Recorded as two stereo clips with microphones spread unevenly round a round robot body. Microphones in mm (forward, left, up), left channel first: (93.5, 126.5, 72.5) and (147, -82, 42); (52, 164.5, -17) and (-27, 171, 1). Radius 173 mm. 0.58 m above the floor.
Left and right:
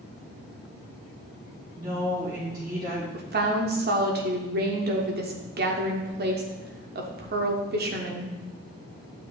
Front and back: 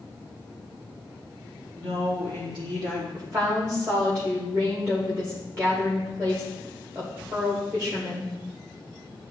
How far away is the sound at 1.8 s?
About 3 m.